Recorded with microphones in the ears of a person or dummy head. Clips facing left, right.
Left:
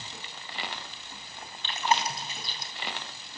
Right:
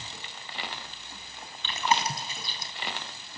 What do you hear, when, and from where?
1.6 s chewing: 75° right (ahead or behind), 3.5 m